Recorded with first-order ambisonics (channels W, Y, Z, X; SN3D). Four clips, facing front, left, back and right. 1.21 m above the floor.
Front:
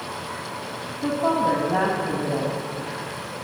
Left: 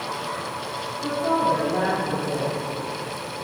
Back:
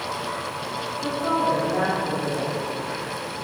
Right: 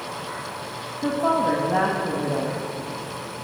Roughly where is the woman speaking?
Ahead right.